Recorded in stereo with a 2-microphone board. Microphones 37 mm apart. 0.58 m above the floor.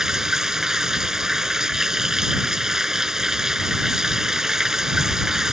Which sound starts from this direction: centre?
Running water, at 0.0 s.